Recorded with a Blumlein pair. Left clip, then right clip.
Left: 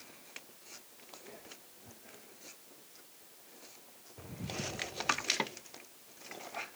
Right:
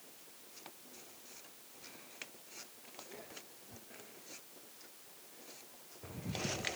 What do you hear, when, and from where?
Only background noise.